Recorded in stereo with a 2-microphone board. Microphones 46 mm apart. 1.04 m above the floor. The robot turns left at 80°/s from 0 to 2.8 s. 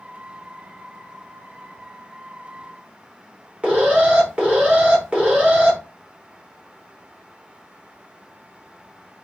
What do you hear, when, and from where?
3.6 s an alarm: 30° right (ahead or behind), 1.7 m